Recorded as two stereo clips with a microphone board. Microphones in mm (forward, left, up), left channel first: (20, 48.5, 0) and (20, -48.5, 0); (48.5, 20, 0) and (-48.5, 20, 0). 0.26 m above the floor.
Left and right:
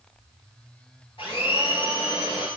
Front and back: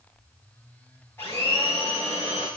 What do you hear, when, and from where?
1.2 s a blender: 65° left, 7 m